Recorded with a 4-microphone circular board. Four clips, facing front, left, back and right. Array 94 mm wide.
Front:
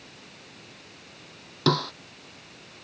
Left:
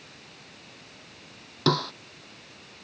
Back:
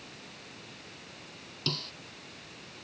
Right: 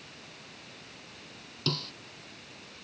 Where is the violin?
No violin in this recording.